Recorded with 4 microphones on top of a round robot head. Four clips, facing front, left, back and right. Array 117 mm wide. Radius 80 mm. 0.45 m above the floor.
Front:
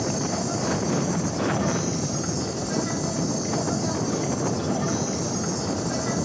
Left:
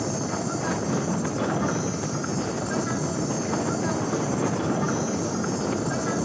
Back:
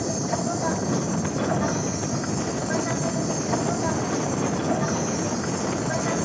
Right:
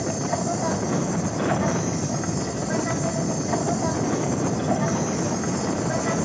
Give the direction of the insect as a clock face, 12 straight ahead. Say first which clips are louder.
Right 2 dB, back 1 dB; 4 o'clock.